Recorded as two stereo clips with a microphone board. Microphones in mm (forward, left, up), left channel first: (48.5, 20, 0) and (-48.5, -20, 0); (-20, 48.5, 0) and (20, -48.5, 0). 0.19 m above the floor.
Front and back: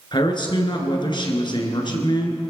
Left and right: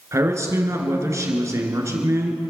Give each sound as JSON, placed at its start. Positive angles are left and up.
{"t": 0.1, "sound": "a man speaking", "azimuth_deg": -10, "distance_m": 2.5}